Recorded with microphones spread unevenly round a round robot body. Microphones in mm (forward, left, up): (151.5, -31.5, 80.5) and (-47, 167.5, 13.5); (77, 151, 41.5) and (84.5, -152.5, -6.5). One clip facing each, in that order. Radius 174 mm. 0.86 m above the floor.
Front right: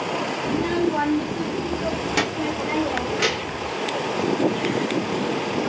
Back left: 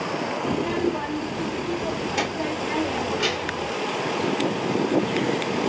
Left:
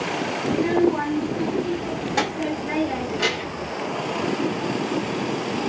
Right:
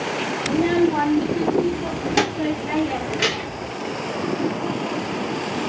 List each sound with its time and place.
0.5 s a child speaking: 60° right, 1.0 m; by 3.7 s 45° right, 2.5 m